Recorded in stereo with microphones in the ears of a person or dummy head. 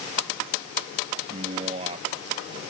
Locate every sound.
1.3 s a man speaking: 30° right (ahead or behind)